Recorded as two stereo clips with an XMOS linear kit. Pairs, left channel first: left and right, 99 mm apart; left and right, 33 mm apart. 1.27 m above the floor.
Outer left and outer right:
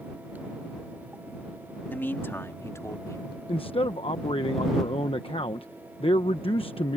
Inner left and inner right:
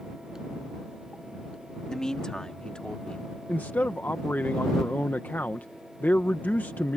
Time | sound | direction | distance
1.9 | a man speaking | 20° left (ahead or behind) | ?
3.5 | a man speaking | 80° left | ?